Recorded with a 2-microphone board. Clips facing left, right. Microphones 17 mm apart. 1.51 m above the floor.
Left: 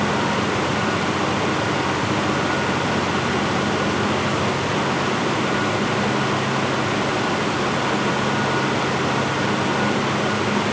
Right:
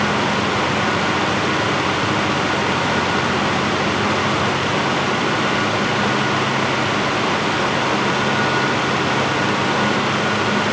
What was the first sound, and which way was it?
Only background noise.